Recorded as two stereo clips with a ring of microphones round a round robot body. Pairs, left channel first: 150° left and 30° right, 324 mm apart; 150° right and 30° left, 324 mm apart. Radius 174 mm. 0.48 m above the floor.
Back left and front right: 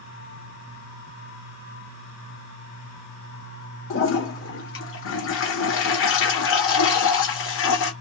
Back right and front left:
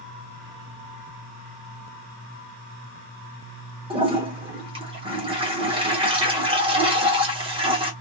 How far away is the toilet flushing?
About 1.0 m.